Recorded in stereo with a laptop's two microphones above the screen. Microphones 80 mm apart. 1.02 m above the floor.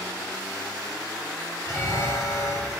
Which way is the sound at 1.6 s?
40° left (ahead or behind).